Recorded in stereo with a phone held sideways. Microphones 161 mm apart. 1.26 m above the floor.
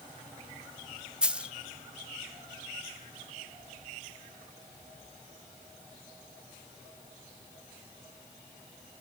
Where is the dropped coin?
5° right (ahead or behind), 0.7 m.